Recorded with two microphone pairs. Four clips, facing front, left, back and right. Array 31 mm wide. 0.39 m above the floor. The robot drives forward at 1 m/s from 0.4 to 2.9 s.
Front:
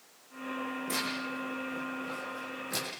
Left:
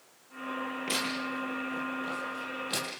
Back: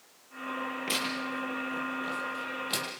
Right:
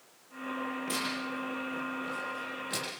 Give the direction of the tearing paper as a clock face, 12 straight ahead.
7 o'clock.